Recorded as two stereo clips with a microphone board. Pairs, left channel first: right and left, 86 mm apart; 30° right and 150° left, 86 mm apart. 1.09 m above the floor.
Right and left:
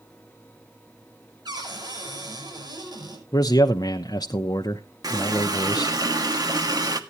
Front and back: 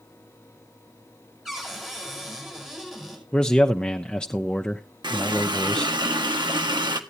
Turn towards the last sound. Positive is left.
turn(degrees=130)